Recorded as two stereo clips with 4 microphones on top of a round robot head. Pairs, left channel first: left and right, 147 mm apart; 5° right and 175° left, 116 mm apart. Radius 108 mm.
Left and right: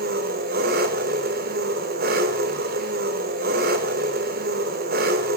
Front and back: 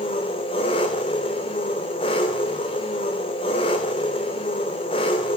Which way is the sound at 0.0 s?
60° right.